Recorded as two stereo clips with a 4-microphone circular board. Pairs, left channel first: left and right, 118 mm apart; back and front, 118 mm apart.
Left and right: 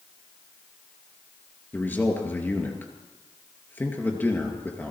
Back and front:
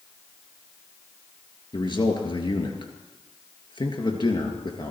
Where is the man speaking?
160° left, 2.5 m.